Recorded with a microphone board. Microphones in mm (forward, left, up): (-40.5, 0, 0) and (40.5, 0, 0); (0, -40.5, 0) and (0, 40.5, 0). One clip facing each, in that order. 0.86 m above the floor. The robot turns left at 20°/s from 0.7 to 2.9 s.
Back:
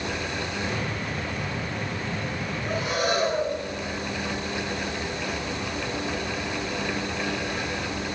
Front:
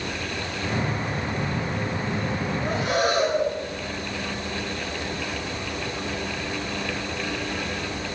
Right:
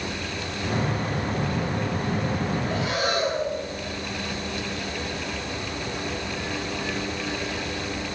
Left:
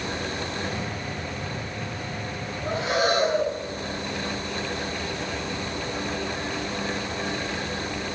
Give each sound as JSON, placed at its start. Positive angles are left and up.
{"t": 2.6, "sound": "breathing", "azimuth_deg": 35, "distance_m": 4.0}